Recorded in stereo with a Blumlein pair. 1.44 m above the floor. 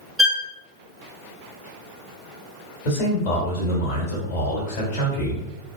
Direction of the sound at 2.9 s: 45° left.